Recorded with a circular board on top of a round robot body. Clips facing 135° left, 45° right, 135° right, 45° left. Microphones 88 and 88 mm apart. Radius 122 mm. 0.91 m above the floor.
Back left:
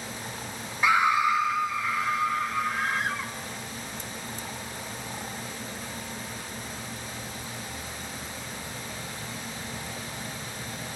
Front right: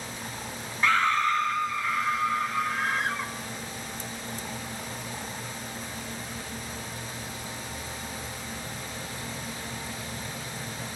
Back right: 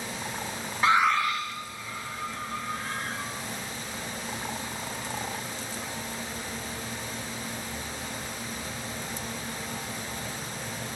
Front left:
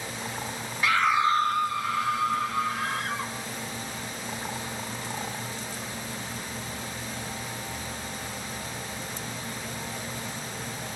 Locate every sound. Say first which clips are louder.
0.8 s a scream: back left 2 dB, even; 155° right, 0.6 m; by 3.3 s 45° left, 3 m